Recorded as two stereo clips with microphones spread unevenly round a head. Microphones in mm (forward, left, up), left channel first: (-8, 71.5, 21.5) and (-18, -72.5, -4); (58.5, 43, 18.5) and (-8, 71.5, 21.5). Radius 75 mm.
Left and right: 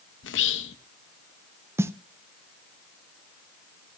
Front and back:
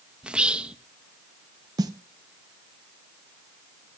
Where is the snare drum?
165° right, 0.6 m.